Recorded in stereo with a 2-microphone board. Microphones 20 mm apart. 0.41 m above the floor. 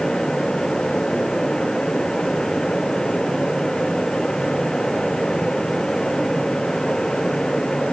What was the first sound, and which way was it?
Only background noise.